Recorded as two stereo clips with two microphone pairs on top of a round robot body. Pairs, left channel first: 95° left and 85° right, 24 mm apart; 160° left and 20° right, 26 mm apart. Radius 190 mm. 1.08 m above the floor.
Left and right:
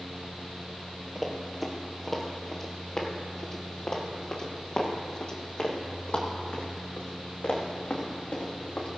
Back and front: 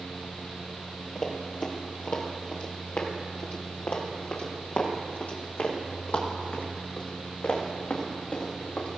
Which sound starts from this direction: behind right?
Running footsteps, at 1.1 s.